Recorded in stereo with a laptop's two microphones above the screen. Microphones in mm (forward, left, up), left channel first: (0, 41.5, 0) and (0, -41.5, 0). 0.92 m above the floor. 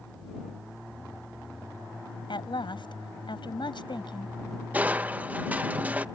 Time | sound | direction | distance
2.3 | a woman speaking | 70° left (ahead or behind) | ?
4.7 | crushing | 20° right (ahead or behind) | ?